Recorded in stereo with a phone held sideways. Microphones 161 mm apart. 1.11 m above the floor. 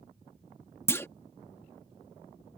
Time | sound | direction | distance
0.9 | a clunk | 15° left (ahead or behind) | ?